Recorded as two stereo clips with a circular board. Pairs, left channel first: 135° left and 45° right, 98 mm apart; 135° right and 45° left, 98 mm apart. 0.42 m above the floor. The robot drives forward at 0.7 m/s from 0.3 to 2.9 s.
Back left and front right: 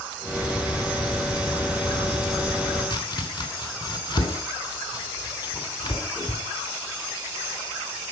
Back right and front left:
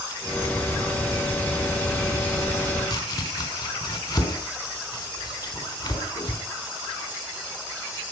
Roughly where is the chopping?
Behind.